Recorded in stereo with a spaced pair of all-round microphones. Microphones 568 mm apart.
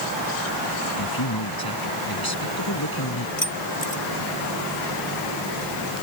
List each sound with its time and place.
1.0 s a man speaking: 40° left (ahead or behind)
3.4 s keys jangling: 70° left (ahead or behind)